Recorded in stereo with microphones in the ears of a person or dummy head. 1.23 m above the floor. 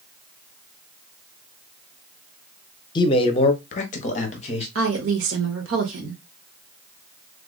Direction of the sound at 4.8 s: 70° right (ahead or behind).